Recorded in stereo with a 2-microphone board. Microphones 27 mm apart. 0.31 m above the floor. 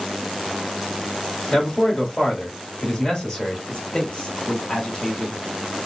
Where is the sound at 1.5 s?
30° left (ahead or behind), 1.3 m.